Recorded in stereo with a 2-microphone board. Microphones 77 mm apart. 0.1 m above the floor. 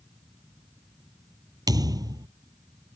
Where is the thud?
60° right (ahead or behind).